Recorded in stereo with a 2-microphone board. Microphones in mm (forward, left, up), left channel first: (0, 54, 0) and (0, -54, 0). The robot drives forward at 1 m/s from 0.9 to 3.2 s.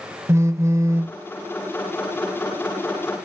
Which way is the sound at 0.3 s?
25° right (ahead or behind).